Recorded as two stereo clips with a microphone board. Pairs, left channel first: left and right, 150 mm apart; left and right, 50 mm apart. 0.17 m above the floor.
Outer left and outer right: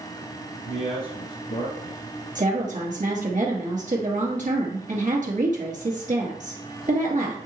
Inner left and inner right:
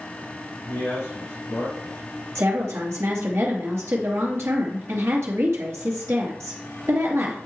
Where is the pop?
No pop in this recording.